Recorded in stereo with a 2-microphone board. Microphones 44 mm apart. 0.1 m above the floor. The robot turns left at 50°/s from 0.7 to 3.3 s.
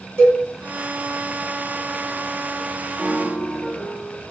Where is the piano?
5° right (ahead or behind), 1.1 m; by 4.2 s 20° right (ahead or behind), 1.1 m.